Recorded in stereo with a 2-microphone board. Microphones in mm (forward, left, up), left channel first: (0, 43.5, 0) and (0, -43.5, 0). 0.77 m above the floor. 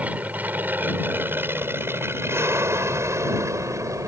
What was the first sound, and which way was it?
An aircraft, 15° right (ahead or behind).